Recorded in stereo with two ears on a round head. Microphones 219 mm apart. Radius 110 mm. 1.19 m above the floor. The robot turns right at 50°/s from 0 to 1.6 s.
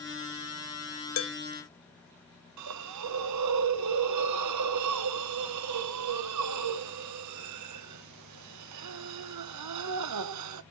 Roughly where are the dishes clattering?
Left.